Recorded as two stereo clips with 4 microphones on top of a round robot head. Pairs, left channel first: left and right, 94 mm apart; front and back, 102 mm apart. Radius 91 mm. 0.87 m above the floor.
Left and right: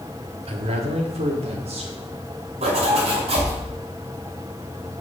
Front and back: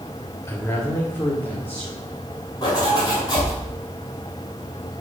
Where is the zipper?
60° right, 2.5 m.